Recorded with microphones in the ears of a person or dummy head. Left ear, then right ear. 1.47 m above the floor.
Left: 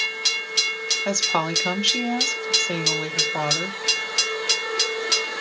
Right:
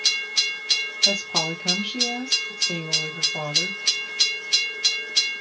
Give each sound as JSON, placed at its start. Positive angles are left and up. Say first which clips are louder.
{"t": 1.1, "sound": "a woman speaking", "louder": "right 2 dB", "side_deg": 60, "distance_m": 1.4}